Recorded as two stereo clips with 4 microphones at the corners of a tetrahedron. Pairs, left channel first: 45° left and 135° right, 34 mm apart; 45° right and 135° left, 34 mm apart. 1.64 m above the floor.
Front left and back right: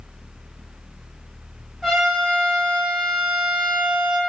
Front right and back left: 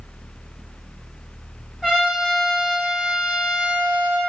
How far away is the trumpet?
About 1.3 m.